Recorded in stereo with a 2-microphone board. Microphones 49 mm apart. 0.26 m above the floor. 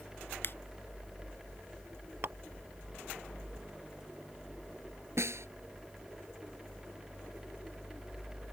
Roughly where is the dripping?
Right.